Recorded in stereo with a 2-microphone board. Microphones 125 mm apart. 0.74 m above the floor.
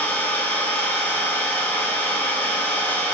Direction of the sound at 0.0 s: 15° left (ahead or behind).